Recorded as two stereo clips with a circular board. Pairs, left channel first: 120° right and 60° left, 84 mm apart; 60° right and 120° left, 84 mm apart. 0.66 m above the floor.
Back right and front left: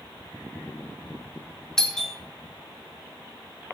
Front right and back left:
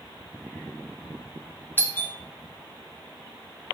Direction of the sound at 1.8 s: 45° right.